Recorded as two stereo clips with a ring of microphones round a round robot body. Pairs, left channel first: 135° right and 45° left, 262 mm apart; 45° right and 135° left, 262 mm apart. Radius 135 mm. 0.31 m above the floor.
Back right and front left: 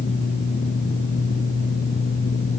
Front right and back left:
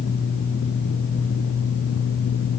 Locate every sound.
Only background noise.